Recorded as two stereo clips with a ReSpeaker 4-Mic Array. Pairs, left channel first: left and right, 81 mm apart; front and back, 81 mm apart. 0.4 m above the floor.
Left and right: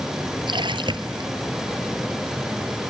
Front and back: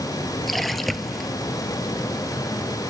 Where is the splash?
90° right.